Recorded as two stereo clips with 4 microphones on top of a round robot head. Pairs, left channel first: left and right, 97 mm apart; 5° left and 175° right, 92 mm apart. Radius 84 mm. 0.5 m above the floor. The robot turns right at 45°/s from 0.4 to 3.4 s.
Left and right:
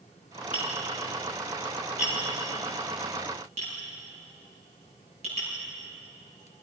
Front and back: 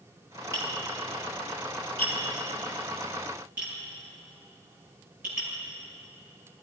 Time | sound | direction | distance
0.5 | tapping | 135° left | 9 m